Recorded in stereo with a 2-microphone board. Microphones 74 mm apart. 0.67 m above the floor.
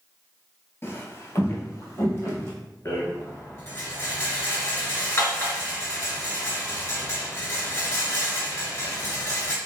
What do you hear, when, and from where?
0.8 s footsteps: 35° left (ahead or behind), 0.7 m
2.9 s a rattle: 45° left (ahead or behind), 1.4 m